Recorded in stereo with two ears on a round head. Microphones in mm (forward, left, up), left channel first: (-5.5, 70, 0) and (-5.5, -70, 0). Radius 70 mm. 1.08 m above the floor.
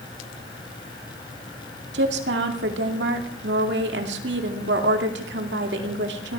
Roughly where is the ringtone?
I don't hear a ringtone.